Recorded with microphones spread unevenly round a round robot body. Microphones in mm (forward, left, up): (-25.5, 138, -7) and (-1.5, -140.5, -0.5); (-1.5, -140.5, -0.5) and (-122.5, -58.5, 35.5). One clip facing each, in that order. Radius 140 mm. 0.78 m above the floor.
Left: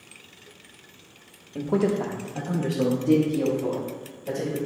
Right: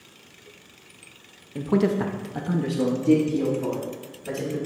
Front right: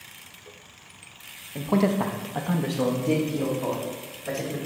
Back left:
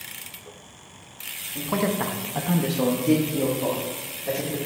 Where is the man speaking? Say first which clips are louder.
Right 1 dB, front right 2 dB; 10° right, 0.6 m; by 4.6 s 140° right, 2.5 m.